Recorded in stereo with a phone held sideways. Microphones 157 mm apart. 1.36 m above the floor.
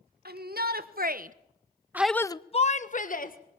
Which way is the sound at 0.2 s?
80° right.